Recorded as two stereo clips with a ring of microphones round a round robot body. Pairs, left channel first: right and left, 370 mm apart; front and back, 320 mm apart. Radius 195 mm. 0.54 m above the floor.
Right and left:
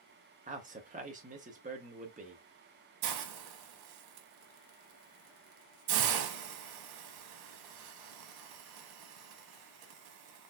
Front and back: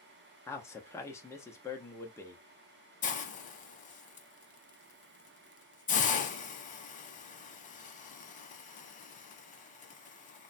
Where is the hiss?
65° left, 0.6 m.